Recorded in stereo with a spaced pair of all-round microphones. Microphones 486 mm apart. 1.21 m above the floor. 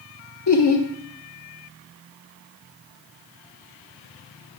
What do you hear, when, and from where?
0.5 s laughter: 55° left (ahead or behind), 1.0 m